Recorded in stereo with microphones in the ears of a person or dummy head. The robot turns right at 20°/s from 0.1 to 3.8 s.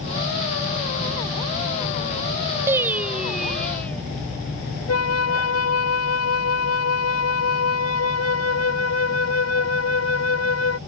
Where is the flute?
80° left.